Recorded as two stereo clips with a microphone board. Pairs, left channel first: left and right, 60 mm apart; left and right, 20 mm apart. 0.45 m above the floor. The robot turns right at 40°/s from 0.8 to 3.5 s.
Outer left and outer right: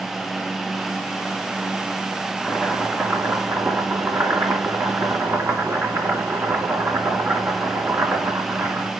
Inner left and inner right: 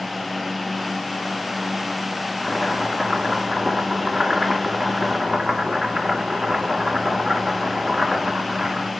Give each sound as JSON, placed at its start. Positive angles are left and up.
{"t": 2.4, "sound": "chopping", "azimuth_deg": -175, "distance_m": 2.5}